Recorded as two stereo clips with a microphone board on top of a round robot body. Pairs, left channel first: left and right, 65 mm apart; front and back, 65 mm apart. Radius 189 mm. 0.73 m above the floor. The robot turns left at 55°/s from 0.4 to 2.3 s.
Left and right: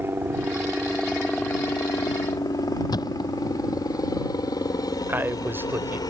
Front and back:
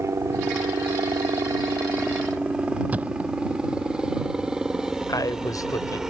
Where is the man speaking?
30° right.